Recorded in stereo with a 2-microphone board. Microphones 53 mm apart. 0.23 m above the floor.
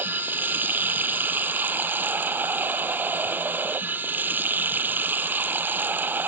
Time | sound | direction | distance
0.0 | running water | 35° right (ahead or behind) | ?